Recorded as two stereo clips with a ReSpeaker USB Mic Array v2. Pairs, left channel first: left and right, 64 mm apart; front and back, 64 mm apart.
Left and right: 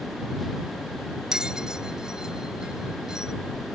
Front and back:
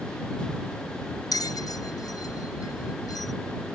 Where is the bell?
10° right.